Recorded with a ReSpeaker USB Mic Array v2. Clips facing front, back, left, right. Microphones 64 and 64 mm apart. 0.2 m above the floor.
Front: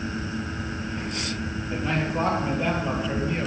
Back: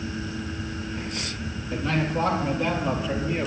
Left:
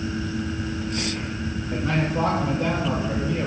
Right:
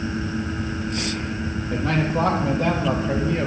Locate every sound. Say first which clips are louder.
1.7 s a man speaking: back 1 dB, right 2 dB; 75° right, 5.5 m; by 3.5 s 95° right, 3.5 m